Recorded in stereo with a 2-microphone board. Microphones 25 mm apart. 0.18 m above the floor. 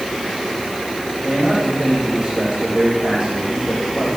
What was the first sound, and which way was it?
A man speaking, 25° right (ahead or behind).